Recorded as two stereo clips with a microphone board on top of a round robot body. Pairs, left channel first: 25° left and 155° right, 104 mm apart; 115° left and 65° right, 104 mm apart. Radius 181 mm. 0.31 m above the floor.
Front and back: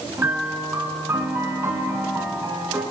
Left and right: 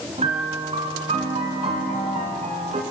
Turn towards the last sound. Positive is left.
turn(degrees=-90)